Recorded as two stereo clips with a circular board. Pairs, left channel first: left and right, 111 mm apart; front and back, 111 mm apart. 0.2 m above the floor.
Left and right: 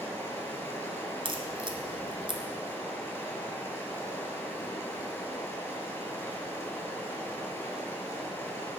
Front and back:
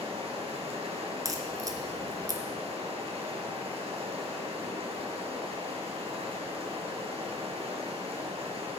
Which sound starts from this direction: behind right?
A crack, at 1.2 s.